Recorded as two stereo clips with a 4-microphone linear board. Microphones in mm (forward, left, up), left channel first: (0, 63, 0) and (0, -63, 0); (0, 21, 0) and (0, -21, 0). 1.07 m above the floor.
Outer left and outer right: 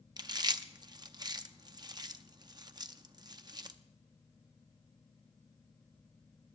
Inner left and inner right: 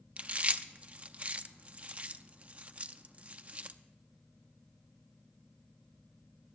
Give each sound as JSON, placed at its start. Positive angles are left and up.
{"t": 0.2, "sound": "chewing", "side_deg": -35, "distance_m": 0.5}